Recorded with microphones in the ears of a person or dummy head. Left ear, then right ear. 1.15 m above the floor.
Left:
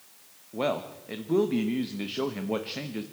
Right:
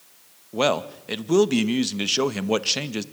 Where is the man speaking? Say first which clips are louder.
Right 7 dB; 90° right, 0.9 m.